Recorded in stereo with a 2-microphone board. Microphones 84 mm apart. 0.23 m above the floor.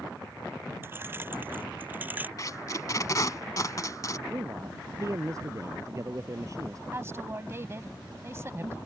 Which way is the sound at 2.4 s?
45° left (ahead or behind).